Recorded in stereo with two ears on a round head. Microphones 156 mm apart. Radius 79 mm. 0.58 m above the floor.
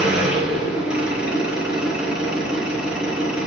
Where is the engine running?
5° right (ahead or behind), 5 m.